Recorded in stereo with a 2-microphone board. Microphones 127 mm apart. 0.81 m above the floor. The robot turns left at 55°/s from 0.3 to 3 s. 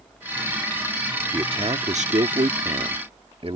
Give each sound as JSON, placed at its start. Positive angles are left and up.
{"t": 1.3, "sound": "a man speaking", "azimuth_deg": -35}